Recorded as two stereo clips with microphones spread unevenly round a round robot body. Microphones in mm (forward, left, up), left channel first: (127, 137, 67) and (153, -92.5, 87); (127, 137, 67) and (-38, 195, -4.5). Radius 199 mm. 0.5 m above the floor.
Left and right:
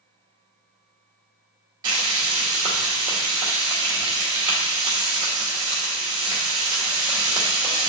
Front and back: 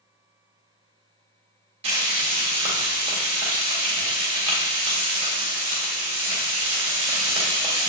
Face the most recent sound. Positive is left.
turn(degrees=-160)